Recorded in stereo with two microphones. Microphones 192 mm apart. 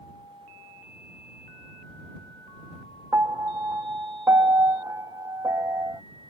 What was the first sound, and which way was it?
A piano, 15° right (ahead or behind).